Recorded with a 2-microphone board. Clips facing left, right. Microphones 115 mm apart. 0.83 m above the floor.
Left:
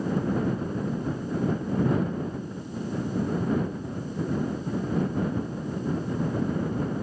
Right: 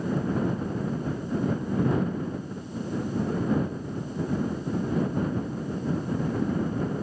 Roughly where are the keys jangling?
No keys jangling in this recording.